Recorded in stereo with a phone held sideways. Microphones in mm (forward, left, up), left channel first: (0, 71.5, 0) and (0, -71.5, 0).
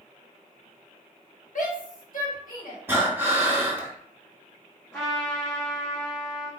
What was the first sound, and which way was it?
A shout, 65° left (ahead or behind).